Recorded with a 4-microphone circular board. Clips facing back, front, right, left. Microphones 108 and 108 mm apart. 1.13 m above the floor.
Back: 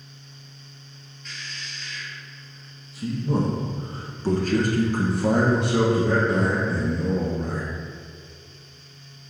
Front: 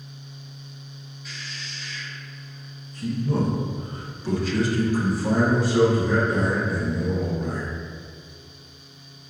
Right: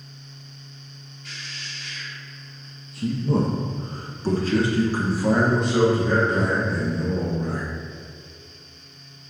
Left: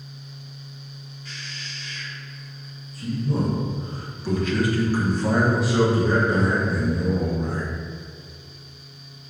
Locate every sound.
1.2 s a man speaking: 80° right, 2 m; by 7.7 s 145° left, 2 m